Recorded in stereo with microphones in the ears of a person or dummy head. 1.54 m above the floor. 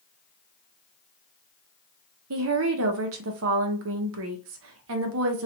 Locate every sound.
2.3 s a woman speaking: 70° right (ahead or behind), 0.8 m